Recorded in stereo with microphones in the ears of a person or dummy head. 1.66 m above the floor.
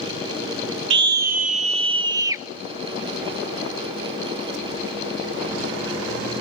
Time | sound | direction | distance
0.9 | a scream | 65° right (ahead or behind) | 1.0 m